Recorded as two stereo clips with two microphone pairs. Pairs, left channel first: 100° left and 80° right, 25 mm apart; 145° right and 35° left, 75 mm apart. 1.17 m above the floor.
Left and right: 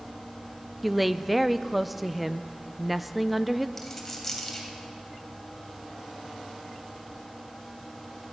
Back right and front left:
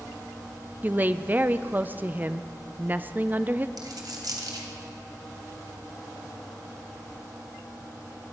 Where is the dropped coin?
15° left, 2.5 m.